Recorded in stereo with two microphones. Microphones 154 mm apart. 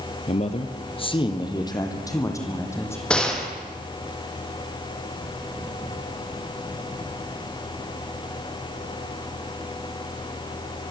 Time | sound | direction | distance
0.3 | a man speaking | 50° left (ahead or behind) | 2 m
3.1 | a gunshot | 5° left (ahead or behind) | 4.5 m